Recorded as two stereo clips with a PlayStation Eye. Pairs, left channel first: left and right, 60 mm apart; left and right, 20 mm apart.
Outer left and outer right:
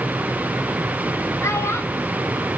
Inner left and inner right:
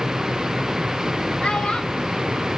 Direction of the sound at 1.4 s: 50° left (ahead or behind).